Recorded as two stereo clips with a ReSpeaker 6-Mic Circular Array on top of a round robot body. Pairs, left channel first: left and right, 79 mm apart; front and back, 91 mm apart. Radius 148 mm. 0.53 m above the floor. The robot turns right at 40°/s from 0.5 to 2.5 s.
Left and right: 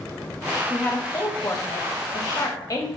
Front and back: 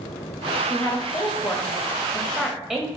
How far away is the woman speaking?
About 0.8 m.